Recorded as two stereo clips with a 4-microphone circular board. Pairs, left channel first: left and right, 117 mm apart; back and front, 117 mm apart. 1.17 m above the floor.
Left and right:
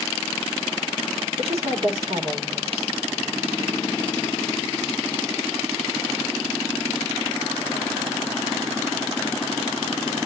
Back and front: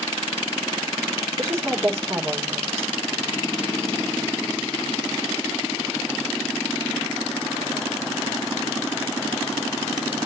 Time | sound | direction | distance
1.4 | a woman speaking | 65° right | 5 m